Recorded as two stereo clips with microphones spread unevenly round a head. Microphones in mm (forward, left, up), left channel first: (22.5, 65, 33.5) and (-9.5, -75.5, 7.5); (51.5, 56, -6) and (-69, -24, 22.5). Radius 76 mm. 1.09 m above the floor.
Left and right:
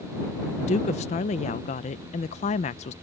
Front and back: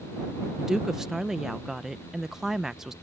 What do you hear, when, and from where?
0.6 s a woman speaking: 120° left